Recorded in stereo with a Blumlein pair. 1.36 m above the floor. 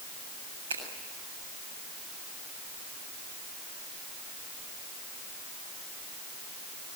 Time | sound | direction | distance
0.7 | a finger snap | 65° right | 7.5 m